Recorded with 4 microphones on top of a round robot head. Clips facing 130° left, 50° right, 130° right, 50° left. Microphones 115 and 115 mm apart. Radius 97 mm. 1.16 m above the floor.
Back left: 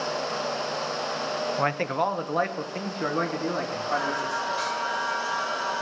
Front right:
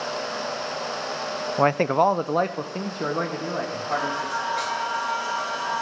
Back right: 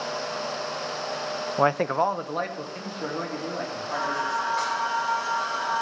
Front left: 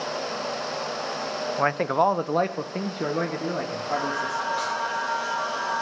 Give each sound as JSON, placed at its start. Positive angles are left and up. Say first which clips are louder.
{"t": 1.6, "sound": "a man speaking", "louder": "front right 9 dB, even", "azimuth_deg": -80, "distance_m": 0.5}
{"t": 3.9, "sound": "singing", "louder": "front right 1 dB, even", "azimuth_deg": -40, "distance_m": 7.5}